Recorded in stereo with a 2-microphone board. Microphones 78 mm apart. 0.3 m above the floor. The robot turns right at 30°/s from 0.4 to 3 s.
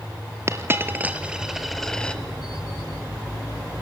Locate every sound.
0.5 s a dropped coin: 35° right (ahead or behind), 1.4 m; by 2.2 s 15° left (ahead or behind), 1.4 m